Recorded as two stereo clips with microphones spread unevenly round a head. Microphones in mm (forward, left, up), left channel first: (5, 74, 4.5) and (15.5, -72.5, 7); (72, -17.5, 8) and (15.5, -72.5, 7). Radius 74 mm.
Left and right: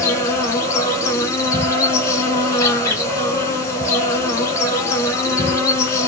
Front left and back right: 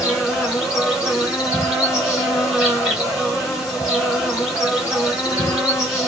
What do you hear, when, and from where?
0.0 s an insect: 150° left, 1.3 m